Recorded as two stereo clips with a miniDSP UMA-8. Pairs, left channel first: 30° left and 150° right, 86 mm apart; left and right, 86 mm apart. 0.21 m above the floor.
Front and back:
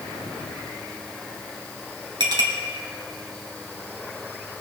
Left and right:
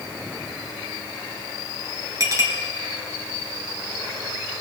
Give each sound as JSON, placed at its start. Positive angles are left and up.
{"t": 2.2, "sound": "a clink", "azimuth_deg": -135, "distance_m": 2.5}